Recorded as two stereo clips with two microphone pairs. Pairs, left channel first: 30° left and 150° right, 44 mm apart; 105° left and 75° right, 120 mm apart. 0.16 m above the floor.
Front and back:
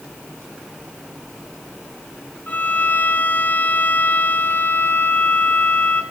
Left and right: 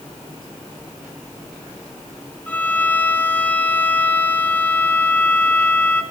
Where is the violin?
35° left, 0.6 m.